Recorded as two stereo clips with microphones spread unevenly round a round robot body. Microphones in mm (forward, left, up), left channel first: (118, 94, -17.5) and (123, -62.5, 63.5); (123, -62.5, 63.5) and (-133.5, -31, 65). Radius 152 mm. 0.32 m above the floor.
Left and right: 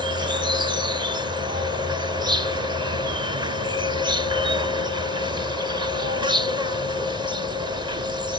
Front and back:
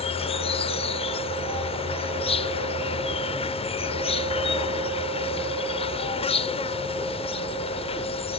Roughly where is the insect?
Ahead.